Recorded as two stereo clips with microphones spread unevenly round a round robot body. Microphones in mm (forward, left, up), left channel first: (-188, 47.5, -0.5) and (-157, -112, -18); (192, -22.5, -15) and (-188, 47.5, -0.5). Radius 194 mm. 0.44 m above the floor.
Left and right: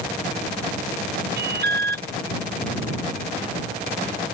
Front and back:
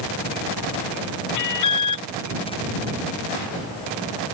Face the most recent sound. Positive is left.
turn(degrees=-50)